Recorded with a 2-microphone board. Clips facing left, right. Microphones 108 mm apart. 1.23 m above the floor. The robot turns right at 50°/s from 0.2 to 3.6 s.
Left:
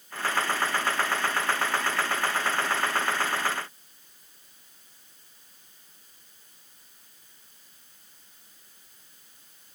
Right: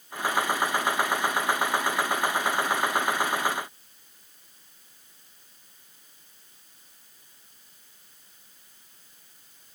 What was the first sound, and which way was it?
Only background noise.